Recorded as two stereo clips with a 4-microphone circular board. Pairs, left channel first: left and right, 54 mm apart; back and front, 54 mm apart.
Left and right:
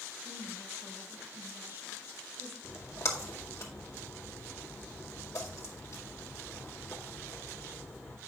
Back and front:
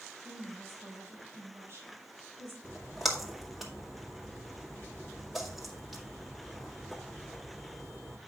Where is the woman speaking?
40° right, 4 m.